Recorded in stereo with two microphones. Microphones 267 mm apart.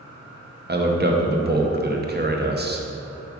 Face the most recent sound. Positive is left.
turn(degrees=-40)  # may be behind; listen again after turning